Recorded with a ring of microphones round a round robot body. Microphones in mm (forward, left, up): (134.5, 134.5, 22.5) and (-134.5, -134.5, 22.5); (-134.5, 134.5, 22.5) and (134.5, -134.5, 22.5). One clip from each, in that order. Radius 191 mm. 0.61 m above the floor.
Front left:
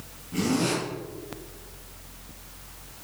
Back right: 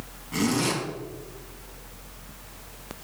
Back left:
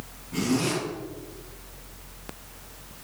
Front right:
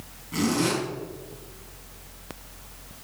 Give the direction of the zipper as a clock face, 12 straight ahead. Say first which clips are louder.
Back right 1 dB, front right 2 dB; 4 o'clock.